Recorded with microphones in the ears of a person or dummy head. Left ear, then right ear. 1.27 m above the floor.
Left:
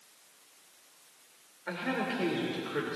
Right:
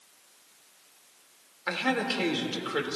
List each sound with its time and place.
1.7 s a man speaking: 40° right (ahead or behind), 2 m